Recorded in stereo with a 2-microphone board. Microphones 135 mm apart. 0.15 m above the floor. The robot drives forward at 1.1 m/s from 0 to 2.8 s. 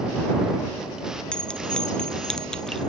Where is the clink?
5° left (ahead or behind).